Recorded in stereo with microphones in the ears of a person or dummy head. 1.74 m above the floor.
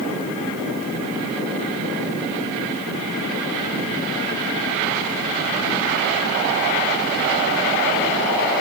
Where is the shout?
I don't hear a shout.